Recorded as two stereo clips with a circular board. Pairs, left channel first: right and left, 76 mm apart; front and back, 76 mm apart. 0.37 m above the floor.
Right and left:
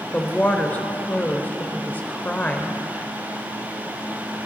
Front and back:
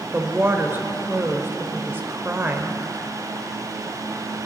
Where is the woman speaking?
145° right, 1.0 m.